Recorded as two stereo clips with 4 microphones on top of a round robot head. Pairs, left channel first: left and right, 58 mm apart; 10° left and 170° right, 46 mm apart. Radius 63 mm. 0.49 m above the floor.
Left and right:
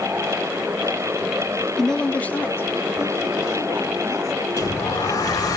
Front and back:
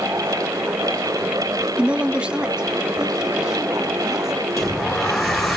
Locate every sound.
1.8 s a woman speaking: 170° left, 1.2 m; by 4.5 s 110° left, 3 m
4.6 s a sliding door: 100° left, 9 m